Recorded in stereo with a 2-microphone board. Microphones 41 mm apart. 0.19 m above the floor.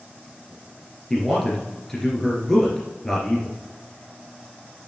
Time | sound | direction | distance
1.1 | a man speaking | 10° left (ahead or behind) | 2.5 m